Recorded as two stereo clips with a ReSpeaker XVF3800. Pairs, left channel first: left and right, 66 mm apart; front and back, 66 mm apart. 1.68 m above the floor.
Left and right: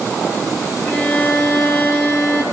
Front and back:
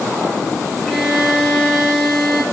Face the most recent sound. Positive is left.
turn(degrees=95)